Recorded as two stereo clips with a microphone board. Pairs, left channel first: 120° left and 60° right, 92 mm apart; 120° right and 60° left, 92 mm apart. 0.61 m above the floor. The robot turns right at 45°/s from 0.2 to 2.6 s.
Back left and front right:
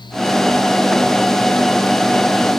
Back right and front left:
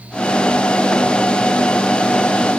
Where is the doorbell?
I don't hear a doorbell.